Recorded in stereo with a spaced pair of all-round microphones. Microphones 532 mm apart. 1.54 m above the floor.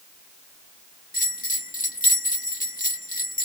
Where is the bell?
15° left (ahead or behind).